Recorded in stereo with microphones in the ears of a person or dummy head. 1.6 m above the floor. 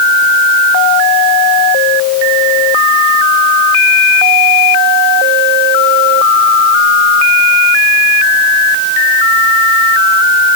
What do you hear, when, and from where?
Only background noise.